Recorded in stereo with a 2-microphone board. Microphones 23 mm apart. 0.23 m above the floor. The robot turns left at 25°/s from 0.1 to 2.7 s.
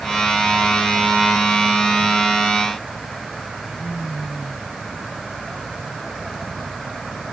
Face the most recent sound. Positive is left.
No sound to turn to.